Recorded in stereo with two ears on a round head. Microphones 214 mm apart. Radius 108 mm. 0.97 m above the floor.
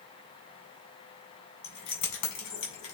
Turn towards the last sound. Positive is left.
turn(degrees=65)  # may be behind; listen again after turning